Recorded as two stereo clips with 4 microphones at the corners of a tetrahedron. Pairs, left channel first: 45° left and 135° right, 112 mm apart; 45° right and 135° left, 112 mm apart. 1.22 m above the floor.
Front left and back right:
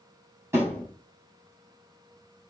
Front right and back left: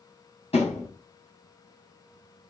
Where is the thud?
70° right, 8.5 m.